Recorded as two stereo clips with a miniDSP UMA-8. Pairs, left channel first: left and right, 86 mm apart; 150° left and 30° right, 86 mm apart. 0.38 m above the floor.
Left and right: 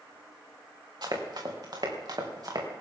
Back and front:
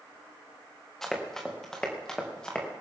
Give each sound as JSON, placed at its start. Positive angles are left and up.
{"t": 1.0, "sound": "running footsteps", "azimuth_deg": -125, "distance_m": 3.5}